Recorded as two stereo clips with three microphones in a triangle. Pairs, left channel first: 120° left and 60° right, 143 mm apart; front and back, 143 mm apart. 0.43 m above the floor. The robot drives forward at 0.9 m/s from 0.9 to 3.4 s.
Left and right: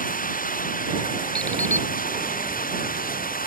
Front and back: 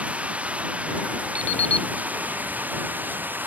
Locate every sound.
0.0 s running water: 100° left
1.4 s an alarm clock: 40° left; by 1.9 s 50° left